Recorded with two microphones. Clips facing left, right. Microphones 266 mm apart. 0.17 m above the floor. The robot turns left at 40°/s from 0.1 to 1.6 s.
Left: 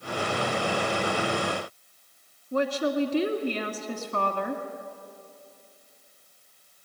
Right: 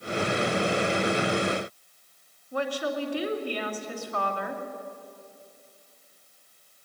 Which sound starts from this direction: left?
A woman speaking, at 2.5 s.